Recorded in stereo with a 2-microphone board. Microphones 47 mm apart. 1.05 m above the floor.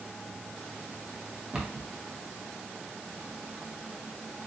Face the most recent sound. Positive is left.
turn(degrees=-15)  # may be behind; listen again after turning